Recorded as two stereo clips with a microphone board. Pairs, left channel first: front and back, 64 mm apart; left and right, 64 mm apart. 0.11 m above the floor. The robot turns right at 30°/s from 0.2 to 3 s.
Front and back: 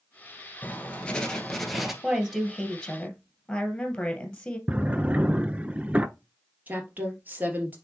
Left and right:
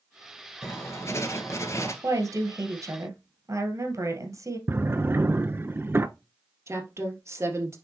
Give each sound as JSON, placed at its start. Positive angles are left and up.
{"t": 0.6, "sound": "writing", "azimuth_deg": 55, "distance_m": 1.3}
{"t": 2.0, "sound": "a woman speaking", "azimuth_deg": -105, "distance_m": 2.0}
{"t": 4.7, "sound": "a drawer", "azimuth_deg": -120, "distance_m": 0.5}
{"t": 6.7, "sound": "a woman speaking", "azimuth_deg": -120, "distance_m": 3.0}